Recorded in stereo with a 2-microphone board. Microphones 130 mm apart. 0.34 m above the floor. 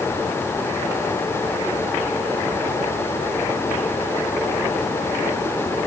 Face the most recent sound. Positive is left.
No sound to turn to.